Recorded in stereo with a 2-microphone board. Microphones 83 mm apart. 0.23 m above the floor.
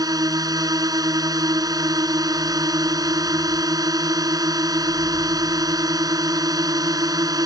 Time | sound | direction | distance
0.0 | a drone | 50° right (ahead or behind) | ?